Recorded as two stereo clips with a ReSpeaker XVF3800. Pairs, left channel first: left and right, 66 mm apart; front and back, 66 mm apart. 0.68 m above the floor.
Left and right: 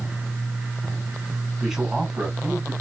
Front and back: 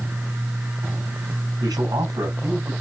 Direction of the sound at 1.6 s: 170° right.